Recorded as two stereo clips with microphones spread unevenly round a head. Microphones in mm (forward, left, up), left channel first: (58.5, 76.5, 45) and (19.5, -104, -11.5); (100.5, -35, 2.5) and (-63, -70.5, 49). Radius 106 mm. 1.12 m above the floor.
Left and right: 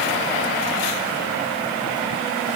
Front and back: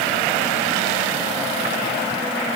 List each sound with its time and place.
Only background noise.